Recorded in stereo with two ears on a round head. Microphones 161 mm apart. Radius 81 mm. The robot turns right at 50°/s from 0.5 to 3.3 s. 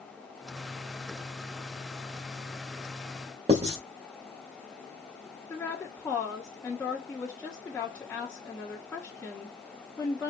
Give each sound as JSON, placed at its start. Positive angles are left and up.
{"t": 3.5, "sound": "writing", "side_deg": -35, "distance_m": 1.8}
{"t": 5.5, "sound": "a woman speaking", "side_deg": 5, "distance_m": 1.2}